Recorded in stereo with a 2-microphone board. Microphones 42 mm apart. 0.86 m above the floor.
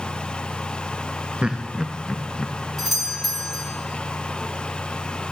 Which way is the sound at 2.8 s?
5° left (ahead or behind).